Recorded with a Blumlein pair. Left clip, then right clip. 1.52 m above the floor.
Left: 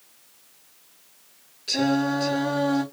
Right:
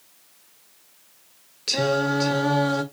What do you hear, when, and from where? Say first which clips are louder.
1.7 s singing: right 2 dB; 30° right, 1.6 m